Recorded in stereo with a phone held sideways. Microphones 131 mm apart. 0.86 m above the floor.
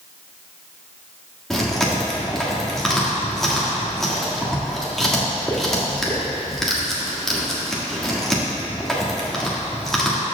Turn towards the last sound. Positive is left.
turn(degrees=0)  # may be behind; listen again after turning